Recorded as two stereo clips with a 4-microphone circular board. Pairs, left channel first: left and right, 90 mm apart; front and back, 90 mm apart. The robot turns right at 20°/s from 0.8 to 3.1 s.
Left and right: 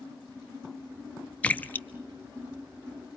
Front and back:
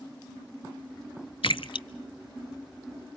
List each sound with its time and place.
1.4 s a splash: 15° left, 0.5 m; by 1.9 s 25° left, 0.5 m